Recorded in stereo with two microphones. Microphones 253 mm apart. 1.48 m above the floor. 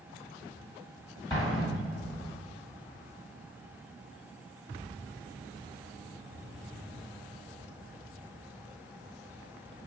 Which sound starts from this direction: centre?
An explosion, at 1.3 s.